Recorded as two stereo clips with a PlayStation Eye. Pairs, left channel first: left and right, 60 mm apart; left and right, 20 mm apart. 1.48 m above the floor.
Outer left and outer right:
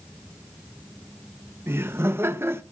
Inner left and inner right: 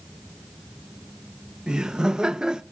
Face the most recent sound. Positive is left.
turn(degrees=-40)  # may be behind; listen again after turning